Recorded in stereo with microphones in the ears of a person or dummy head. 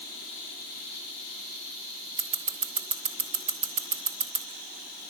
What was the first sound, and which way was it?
Scissors, 40° right (ahead or behind).